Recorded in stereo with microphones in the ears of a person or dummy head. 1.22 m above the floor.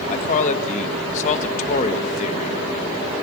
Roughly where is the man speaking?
Left.